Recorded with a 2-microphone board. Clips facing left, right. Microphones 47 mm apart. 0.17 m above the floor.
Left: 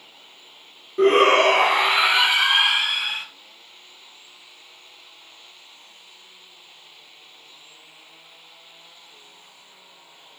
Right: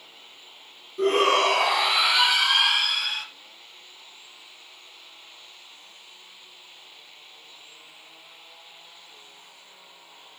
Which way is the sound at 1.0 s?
45° left (ahead or behind).